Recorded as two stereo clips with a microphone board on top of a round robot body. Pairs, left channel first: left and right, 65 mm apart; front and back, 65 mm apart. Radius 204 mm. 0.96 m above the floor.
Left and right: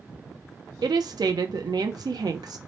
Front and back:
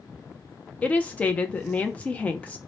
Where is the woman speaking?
70° right, 0.5 m.